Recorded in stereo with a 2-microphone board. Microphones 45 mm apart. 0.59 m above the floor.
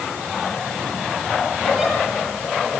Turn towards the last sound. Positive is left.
turn(degrees=-5)  # may be behind; listen again after turning